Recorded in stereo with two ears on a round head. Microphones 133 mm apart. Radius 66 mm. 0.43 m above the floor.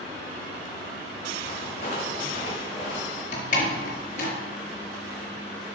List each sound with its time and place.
1.4 s footsteps: 45° left (ahead or behind), 6.5 m; by 3.2 s 40° left (ahead or behind), 7 m
3.3 s a door slam: 55° left (ahead or behind), 4.5 m